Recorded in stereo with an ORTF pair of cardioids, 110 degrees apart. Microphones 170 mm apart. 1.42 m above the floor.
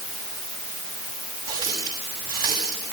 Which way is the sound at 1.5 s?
60° right.